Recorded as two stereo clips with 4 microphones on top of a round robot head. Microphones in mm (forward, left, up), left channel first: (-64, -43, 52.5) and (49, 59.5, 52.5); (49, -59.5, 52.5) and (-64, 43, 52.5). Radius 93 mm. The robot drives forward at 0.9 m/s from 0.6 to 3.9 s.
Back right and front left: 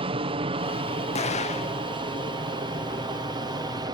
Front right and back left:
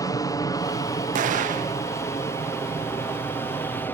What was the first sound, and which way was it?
An aircraft, 10° left.